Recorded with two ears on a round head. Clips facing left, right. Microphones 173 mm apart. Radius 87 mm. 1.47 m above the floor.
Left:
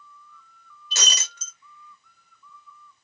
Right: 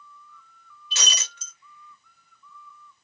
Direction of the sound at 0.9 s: 35° left (ahead or behind).